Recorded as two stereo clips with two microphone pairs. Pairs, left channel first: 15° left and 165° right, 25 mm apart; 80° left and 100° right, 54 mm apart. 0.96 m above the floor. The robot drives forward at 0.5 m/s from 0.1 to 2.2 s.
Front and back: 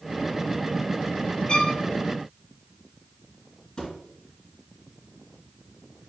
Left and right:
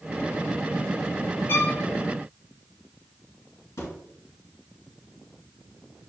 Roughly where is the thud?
Ahead left.